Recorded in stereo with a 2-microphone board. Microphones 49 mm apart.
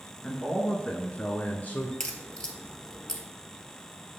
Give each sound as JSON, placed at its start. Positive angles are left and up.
{"t": 0.2, "sound": "a man speaking", "side_deg": 10, "distance_m": 1.6}
{"t": 2.0, "sound": "a crack", "side_deg": 15, "distance_m": 1.3}